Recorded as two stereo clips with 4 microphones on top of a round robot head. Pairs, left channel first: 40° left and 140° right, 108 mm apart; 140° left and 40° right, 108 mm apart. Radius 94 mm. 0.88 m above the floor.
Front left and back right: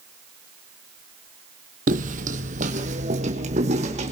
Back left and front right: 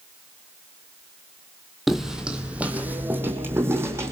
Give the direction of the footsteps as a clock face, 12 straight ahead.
4 o'clock.